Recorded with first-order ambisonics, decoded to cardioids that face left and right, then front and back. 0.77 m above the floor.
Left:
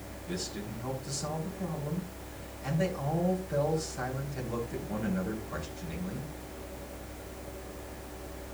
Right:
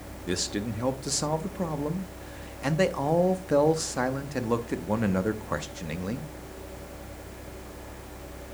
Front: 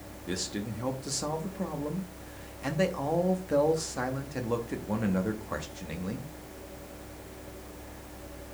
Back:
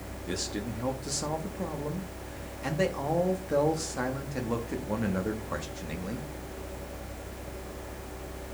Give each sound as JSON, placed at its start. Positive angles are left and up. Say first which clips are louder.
{"t": 0.3, "sound": "a man speaking", "louder": "right 8 dB, back 1 dB", "azimuth_deg": -85, "distance_m": 0.9}